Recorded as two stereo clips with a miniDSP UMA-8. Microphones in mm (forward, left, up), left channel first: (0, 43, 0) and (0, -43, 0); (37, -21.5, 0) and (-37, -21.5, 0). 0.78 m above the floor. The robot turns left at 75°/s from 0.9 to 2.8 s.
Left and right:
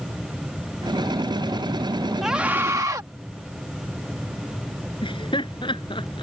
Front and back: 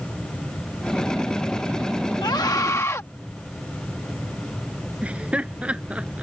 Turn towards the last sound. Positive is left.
turn(degrees=105)